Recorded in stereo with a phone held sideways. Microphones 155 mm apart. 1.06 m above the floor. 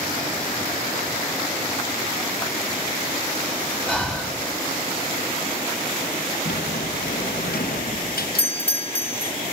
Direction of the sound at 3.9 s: 5° left (ahead or behind).